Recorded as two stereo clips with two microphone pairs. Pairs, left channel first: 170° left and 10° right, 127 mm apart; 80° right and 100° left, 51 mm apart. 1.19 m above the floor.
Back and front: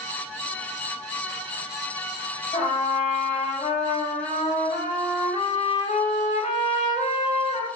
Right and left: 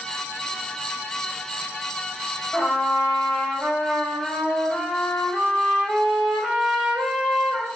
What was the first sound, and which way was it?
A trumpet, 175° left.